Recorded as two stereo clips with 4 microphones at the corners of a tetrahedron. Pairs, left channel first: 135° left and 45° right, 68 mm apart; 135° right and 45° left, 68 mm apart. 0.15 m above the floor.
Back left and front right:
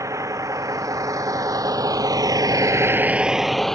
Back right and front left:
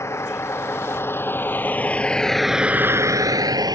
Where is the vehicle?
85° right; by 3.8 s 50° left.